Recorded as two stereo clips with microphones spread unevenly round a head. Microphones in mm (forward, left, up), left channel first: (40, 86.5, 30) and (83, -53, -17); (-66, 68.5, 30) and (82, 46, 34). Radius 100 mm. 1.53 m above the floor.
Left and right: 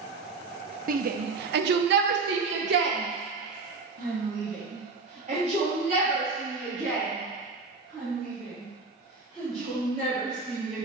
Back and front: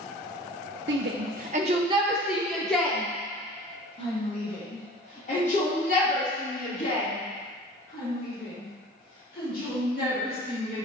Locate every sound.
0.9 s a shout: 40° right, 1.0 m; by 10.9 s 145° right, 5.5 m